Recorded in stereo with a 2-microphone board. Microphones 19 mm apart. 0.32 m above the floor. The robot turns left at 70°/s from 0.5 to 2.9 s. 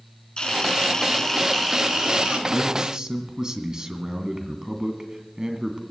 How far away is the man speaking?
About 2 m.